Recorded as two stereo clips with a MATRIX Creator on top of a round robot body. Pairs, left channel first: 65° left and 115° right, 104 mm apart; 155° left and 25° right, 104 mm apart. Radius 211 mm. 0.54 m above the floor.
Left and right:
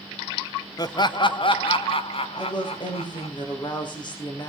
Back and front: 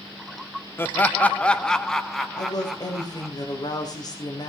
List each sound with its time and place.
0.8 s laughter: 100° left, 1.0 m; by 3.3 s 65° left, 2 m
2.3 s a woman speaking: 110° left, 3 m